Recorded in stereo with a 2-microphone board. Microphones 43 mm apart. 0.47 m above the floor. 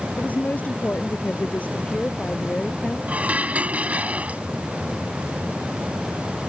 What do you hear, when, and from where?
0.2 s a woman speaking: 35° left (ahead or behind); by 3.0 s 30° left (ahead or behind)
3.1 s dishes clattering: 35° right (ahead or behind)